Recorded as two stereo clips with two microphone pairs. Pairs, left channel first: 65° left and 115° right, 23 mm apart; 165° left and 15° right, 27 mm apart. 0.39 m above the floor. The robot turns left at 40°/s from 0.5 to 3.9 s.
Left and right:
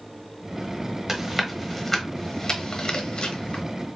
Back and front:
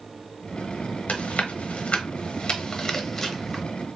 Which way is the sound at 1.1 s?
175° left.